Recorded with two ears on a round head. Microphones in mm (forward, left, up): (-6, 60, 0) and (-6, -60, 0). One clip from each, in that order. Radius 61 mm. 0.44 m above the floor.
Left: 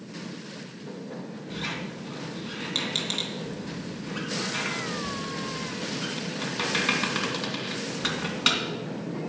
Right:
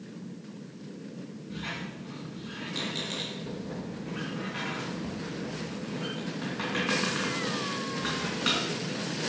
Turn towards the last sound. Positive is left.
turn(degrees=70)  # may be behind; listen again after turning